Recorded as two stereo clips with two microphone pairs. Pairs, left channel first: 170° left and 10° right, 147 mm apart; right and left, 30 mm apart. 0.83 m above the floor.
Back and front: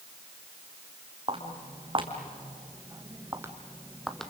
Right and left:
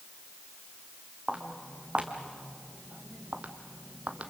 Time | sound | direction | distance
1.3 | footsteps | 40° left | 2.5 m